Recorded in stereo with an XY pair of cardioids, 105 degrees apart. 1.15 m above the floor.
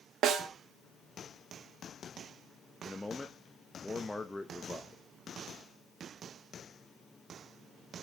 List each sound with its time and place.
0.2 s a snare drum: 70° right, 1.3 m
2.9 s a man speaking: 20° left, 1.1 m